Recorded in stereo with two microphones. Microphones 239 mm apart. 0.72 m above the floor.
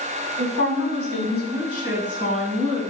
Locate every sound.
0.4 s a woman speaking: 65° right (ahead or behind), 5 m; by 2.8 s 75° right (ahead or behind), 6 m